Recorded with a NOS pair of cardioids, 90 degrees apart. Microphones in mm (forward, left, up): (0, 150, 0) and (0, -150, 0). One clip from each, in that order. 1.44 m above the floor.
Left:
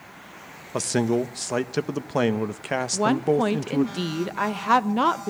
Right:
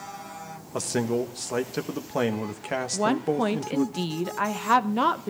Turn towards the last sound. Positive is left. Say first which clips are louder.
# left 3 dB
turn(degrees=10)